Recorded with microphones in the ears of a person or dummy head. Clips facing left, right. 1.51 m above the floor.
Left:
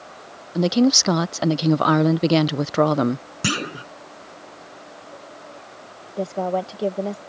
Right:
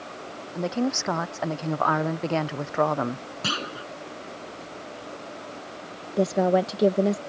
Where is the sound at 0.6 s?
45° left (ahead or behind).